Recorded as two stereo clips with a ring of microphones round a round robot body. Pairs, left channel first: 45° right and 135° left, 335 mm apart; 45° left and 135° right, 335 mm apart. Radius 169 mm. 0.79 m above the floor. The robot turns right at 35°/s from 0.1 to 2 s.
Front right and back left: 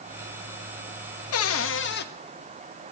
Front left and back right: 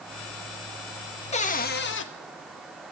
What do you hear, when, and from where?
1.3 s a cupboard door: 20° right, 0.8 m; by 2.1 s 5° left, 0.8 m